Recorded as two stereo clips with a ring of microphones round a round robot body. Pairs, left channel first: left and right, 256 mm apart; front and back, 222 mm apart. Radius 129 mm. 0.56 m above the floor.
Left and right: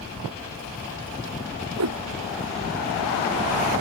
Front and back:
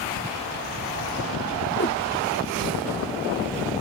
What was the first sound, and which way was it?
A whoosh, 55° right.